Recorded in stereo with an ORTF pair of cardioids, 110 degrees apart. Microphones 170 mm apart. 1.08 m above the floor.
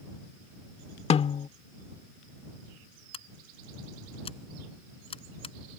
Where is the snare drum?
40° left.